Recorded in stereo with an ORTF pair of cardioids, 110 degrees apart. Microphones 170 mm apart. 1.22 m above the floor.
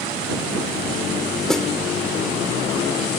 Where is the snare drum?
Straight ahead.